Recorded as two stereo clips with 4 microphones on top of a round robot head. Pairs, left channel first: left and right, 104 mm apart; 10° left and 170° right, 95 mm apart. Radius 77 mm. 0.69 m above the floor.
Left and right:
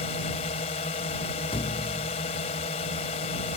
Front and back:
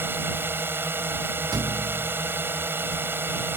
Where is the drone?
125° left.